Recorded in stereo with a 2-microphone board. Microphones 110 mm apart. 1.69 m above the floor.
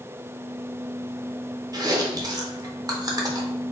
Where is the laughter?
No laughter in this recording.